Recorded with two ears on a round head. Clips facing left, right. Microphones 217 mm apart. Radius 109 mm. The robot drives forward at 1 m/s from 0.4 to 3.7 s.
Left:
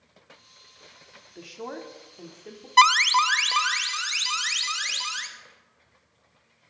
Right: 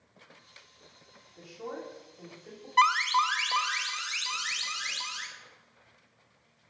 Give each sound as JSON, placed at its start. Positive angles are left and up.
{"t": 1.4, "sound": "a woman speaking", "side_deg": 80, "distance_m": 2.5}
{"t": 2.8, "sound": "an alarm", "side_deg": 60, "distance_m": 0.6}